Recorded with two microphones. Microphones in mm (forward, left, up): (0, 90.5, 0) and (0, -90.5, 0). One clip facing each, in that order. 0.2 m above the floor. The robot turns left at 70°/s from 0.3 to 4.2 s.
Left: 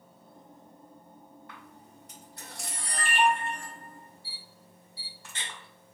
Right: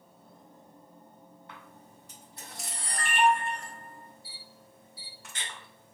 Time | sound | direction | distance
1.5 | a camera shutter | 25° right (ahead or behind) | 1.8 m